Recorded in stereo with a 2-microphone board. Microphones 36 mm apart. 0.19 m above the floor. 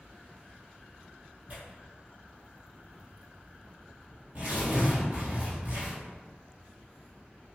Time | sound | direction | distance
1.5 | tearing paper | 35° right (ahead or behind) | 1.5 m